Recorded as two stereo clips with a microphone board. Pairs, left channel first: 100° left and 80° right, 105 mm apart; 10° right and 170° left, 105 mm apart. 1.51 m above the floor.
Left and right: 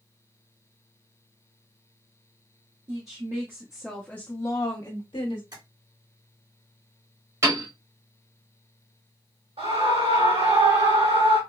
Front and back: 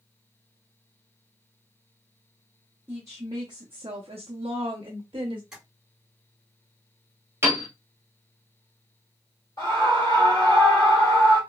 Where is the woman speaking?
125° right, 0.8 m; by 5.4 s 130° left, 1.0 m.